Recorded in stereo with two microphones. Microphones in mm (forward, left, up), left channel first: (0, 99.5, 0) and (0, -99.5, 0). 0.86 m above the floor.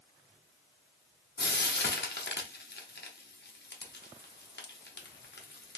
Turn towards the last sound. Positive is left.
turn(degrees=60)  # may be behind; listen again after turning